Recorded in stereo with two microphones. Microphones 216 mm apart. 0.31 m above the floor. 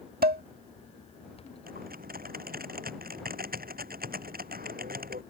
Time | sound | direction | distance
0.2 | dishes clattering | 50° right (ahead or behind) | ?
1.7 | typing on a keyboard | 45° right (ahead or behind) | ?